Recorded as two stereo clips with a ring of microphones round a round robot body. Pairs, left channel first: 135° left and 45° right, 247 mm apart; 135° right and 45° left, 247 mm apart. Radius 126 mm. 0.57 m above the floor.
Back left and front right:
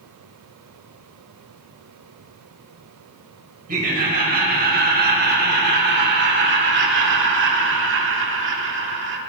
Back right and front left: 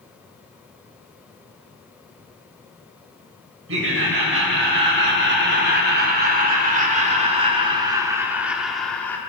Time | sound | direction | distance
3.7 | laughter | 10° left | 3.5 m